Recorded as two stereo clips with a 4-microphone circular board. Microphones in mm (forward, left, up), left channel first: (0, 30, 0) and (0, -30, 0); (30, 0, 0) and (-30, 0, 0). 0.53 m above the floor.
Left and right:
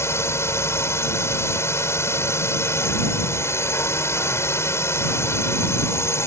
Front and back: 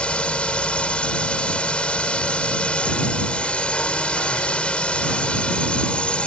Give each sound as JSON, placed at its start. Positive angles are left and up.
{"t": 0.0, "sound": "a drone", "azimuth_deg": 65}